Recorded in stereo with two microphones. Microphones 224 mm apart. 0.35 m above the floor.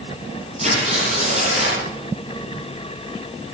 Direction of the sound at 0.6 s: 30° right (ahead or behind).